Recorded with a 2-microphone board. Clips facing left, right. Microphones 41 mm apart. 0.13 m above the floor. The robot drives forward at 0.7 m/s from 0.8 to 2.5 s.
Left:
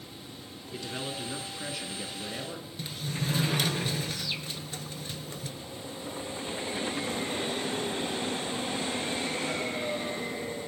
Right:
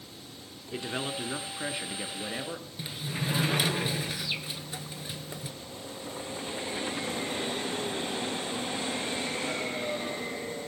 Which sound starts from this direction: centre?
A sliding door, at 2.8 s.